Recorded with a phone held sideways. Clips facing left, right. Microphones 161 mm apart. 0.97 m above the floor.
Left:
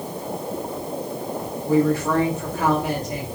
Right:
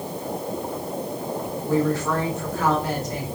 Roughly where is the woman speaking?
Centre.